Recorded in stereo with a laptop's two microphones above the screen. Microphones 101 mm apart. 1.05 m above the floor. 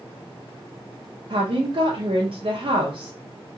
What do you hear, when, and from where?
1.3 s a woman speaking: 60° right (ahead or behind), 0.5 m